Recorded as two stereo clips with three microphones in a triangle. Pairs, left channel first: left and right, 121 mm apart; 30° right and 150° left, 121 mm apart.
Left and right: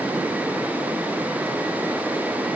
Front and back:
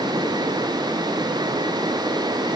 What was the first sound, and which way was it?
Only background noise.